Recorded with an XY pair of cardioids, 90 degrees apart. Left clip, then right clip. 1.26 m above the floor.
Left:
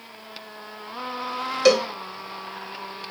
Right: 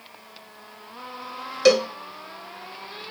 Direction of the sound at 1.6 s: 5° right.